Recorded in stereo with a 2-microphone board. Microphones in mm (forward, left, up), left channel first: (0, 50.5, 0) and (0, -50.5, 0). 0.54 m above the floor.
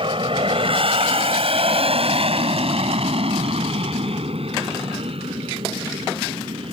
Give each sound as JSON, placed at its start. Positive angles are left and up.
{"t": 0.0, "sound": "an aircraft", "side_deg": -60}